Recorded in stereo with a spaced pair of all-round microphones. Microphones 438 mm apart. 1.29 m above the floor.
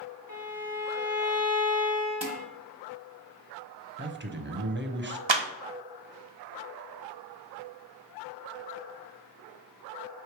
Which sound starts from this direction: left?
A violin, at 0.3 s.